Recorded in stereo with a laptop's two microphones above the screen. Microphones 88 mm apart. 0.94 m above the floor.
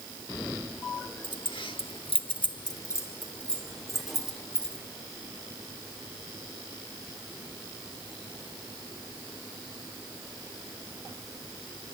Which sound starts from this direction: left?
Keys jangling, at 1.2 s.